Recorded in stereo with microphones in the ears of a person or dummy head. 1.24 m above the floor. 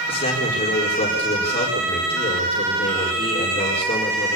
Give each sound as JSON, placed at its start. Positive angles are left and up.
{"t": 0.1, "sound": "a man speaking", "side_deg": 30, "distance_m": 4.5}